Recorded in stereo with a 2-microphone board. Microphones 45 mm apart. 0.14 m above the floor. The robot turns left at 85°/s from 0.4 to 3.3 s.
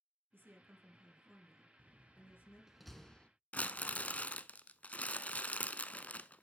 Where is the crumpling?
35° left (ahead or behind), 0.5 m.